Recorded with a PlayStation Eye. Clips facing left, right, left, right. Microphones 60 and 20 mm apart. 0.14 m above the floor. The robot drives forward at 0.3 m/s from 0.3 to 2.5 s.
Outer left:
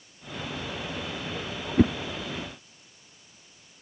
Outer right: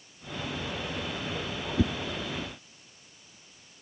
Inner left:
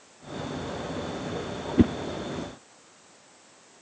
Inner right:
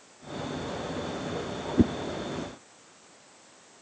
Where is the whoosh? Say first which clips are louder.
Outer left 7 dB, inner left 2 dB; 45° left (ahead or behind).